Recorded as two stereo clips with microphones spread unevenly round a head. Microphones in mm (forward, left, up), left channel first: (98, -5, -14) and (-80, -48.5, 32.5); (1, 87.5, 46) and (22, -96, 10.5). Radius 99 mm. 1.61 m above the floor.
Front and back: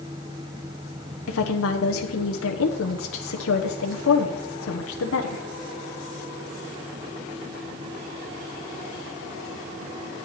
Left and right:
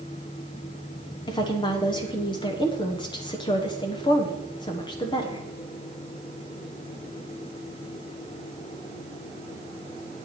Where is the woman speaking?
30° left, 1.1 m.